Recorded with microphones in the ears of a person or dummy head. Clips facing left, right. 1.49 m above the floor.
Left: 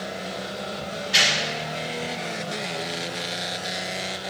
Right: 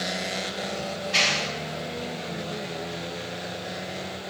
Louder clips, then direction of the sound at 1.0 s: Even; 10° left (ahead or behind).